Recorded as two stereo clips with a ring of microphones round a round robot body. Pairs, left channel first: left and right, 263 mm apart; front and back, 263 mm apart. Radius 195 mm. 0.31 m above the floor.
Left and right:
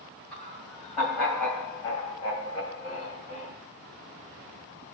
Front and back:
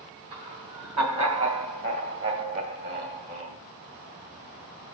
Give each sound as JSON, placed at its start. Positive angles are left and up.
{"t": 0.3, "sound": "laughter", "azimuth_deg": 180, "distance_m": 3.0}